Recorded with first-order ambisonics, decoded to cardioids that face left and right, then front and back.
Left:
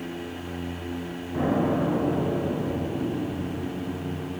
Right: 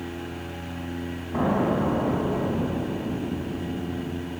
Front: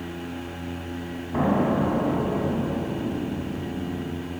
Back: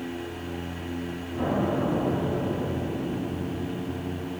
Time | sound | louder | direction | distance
1.3 | an explosion | right 1 dB, front 4 dB | 30° right | 5 m